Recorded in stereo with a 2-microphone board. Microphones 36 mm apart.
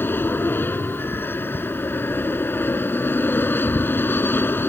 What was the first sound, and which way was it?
An aircraft, 80° left.